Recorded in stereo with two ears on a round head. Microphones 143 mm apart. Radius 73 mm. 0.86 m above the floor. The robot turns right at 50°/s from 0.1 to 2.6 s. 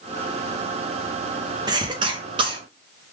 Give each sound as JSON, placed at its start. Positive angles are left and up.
{"t": 1.7, "sound": "a cough", "side_deg": -25, "distance_m": 0.9}